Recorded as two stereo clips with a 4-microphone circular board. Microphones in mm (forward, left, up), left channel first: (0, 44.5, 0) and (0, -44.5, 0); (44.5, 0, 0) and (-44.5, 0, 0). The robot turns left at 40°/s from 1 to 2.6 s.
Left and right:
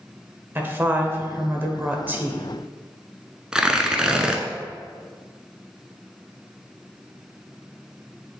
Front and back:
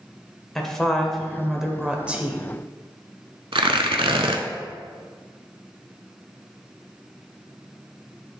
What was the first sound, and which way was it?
A woman speaking, 80° right.